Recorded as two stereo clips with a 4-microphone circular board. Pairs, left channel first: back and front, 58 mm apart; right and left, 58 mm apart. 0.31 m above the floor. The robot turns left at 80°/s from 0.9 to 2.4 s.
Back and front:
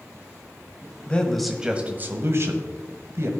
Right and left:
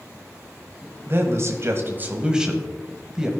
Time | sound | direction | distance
1.1 | a man speaking | 120° left | 1.3 m